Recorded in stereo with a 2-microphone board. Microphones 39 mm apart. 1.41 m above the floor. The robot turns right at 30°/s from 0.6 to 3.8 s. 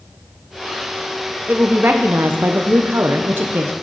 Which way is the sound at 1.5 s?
135° right.